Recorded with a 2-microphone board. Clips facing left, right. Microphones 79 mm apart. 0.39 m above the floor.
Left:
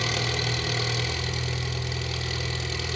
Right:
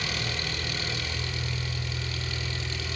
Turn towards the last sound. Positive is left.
turn(degrees=65)  # may be behind; listen again after turning